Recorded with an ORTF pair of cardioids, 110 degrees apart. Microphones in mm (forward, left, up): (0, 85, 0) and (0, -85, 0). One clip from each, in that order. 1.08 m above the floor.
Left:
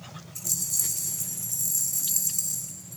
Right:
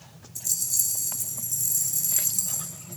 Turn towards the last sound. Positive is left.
turn(degrees=-10)